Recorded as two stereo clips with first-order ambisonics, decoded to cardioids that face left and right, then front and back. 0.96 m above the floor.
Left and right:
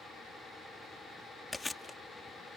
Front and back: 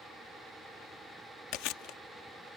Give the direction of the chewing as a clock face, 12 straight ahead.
12 o'clock.